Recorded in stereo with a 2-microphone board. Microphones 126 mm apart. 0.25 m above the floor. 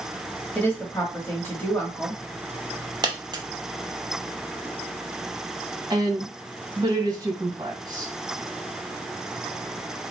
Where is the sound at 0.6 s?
15° left (ahead or behind), 0.9 m.